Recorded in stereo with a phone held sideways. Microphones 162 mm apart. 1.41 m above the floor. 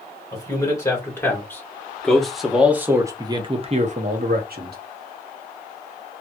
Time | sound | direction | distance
0.3 | a man speaking | 20° left (ahead or behind) | 2.0 m